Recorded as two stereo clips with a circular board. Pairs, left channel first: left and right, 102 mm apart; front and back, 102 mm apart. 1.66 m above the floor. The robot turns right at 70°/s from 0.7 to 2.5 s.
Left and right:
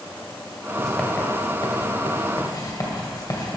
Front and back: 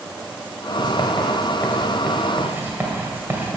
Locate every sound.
0.8 s writing: straight ahead, 2.0 m; by 3.6 s 120° left, 2.0 m